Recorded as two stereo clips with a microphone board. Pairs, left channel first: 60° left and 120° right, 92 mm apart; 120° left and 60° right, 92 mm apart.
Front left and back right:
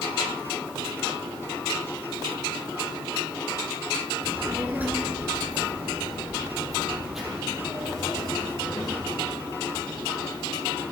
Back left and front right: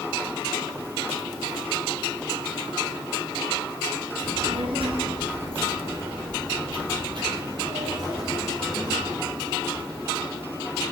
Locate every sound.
4.2 s a child speaking: 55° right, 3 m; by 9.2 s 25° right, 10 m